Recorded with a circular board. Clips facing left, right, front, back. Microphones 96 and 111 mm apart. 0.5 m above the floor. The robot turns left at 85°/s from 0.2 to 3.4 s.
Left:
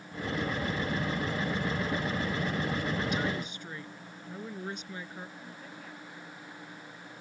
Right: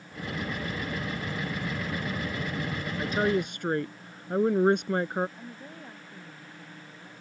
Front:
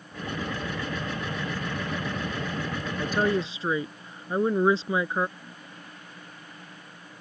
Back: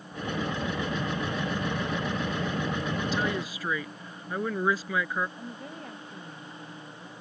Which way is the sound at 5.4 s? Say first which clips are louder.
Right 3 dB, back 6 dB; 150° right.